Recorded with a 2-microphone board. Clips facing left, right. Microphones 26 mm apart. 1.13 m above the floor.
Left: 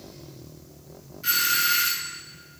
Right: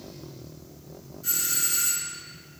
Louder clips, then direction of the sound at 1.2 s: Left 7 dB; 50° left (ahead or behind).